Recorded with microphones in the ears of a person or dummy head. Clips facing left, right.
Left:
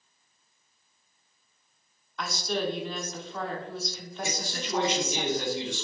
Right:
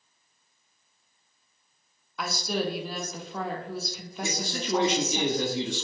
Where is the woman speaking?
5° right (ahead or behind), 0.5 m.